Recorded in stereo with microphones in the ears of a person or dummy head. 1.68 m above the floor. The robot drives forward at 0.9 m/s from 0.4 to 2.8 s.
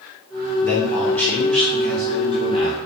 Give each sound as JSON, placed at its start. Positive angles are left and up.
{"t": 0.6, "sound": "a man speaking", "side_deg": 10, "distance_m": 0.8}